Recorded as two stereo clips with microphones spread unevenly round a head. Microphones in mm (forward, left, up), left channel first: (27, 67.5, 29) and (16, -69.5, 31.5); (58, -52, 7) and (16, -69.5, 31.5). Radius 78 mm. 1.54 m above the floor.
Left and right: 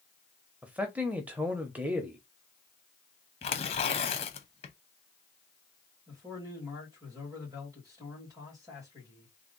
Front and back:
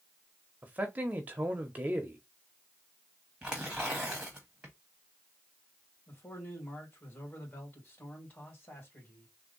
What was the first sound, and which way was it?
A man speaking, 175° right.